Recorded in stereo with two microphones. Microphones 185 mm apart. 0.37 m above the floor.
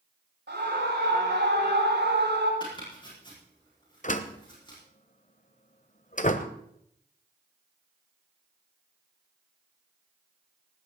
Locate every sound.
0.5 s a scream: 75° right (ahead or behind), 6 m; by 2.5 s 80° right, 7.5 m
2.6 s chopping: 25° left (ahead or behind), 7 m
4.0 s a door slam: 45° left (ahead or behind), 1.2 m